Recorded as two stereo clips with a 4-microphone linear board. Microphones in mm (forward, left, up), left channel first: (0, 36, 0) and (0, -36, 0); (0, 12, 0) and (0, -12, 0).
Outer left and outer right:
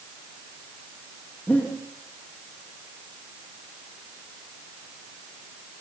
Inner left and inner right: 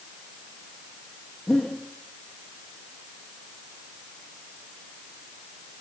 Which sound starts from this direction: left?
Breathing, at 1.5 s.